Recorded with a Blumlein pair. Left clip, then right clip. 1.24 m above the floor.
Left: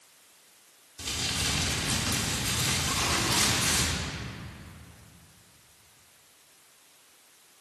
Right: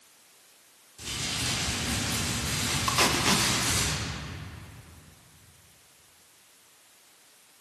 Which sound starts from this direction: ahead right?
Tape being pulled, at 2.9 s.